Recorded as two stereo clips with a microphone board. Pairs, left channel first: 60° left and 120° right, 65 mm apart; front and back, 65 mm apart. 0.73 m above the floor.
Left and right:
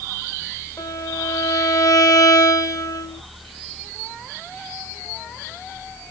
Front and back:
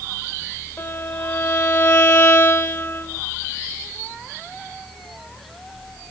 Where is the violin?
45° left, 2.5 m.